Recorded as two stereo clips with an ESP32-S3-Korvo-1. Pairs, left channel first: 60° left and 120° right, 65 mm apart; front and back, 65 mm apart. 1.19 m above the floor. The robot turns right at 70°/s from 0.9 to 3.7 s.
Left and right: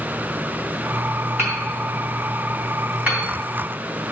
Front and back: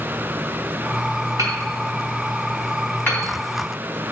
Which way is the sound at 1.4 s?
170° right.